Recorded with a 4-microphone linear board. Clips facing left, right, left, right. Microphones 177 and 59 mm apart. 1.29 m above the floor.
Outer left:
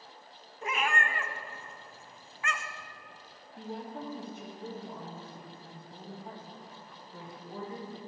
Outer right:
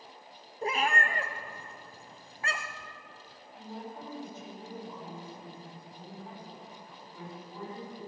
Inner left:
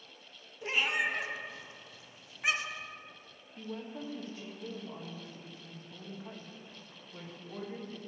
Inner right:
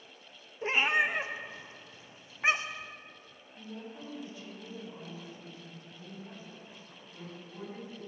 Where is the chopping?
I don't hear chopping.